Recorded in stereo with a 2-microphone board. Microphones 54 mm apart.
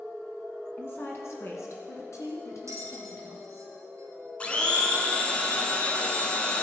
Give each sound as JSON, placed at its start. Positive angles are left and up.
{"t": 0.8, "sound": "a woman speaking", "side_deg": 45, "distance_m": 2.0}
{"t": 2.7, "sound": "a bell", "side_deg": -75, "distance_m": 2.0}
{"t": 4.4, "sound": "a blender", "side_deg": 20, "distance_m": 1.2}